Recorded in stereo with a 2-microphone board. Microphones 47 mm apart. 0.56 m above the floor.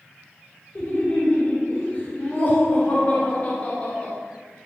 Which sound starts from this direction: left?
Laughter, at 0.8 s.